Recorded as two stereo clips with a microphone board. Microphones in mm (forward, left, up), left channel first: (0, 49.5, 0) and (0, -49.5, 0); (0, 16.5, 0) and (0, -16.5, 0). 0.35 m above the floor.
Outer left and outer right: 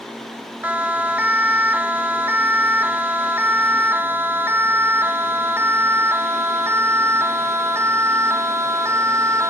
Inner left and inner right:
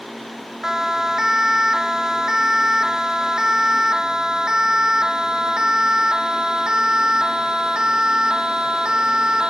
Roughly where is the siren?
Centre.